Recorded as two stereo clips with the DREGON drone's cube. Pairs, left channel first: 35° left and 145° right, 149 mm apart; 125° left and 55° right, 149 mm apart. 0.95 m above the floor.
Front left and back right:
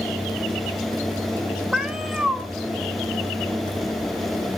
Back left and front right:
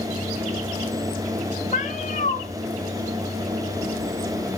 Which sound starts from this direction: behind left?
A cat meowing, at 1.7 s.